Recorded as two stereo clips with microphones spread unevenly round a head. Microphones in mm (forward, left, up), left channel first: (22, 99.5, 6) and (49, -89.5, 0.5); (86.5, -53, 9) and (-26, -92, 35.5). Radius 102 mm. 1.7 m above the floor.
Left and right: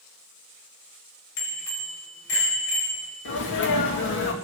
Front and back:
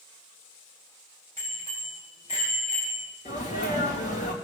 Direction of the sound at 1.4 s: 95° left.